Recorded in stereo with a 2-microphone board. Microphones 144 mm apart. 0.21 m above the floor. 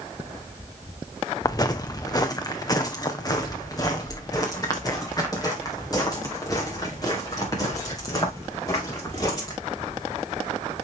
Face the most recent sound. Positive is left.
turn(degrees=25)  # may be behind; listen again after turning